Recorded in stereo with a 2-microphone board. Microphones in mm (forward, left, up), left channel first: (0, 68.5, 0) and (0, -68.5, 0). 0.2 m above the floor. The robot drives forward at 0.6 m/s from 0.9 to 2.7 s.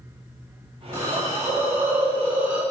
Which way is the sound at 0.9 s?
20° right (ahead or behind).